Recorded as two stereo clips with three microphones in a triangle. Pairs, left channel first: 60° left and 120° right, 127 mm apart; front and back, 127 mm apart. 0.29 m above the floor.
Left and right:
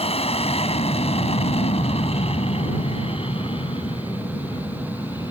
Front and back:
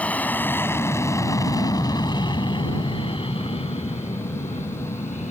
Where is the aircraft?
75° left; by 5.3 s 10° left.